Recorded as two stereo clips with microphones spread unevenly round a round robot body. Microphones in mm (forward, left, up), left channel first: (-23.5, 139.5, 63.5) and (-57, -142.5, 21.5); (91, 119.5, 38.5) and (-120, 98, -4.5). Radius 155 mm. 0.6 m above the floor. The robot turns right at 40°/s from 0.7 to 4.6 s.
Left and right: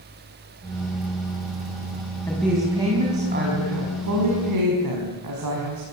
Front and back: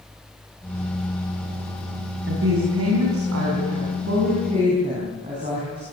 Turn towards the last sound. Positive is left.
turn(degrees=-105)